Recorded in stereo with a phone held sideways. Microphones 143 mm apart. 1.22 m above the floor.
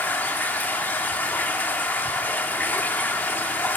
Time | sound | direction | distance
0.0 | running water | 10° left (ahead or behind) | 1.0 m